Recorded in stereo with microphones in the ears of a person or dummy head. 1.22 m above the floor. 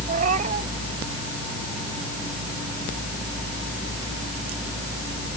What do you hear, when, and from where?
0.1 s a cat meowing: 40° right (ahead or behind)